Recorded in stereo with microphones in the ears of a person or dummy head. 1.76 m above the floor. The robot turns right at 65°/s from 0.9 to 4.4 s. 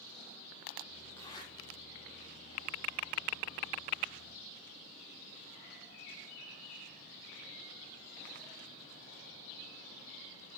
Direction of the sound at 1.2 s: 15° left (ahead or behind).